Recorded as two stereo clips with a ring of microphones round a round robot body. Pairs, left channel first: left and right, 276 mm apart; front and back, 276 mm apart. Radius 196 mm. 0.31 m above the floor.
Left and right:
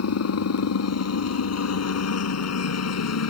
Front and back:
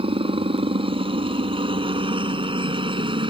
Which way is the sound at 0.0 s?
110° left.